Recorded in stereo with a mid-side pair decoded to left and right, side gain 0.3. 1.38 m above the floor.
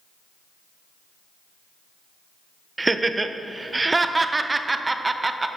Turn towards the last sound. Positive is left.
turn(degrees=-30)